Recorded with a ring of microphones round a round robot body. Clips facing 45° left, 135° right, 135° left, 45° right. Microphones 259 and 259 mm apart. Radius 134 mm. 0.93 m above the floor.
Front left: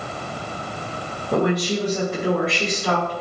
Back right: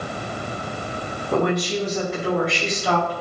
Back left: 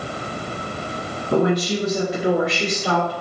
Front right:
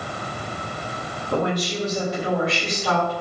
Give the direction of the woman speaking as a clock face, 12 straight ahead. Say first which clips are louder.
Front left 1 dB, back left 5 dB; 8 o'clock.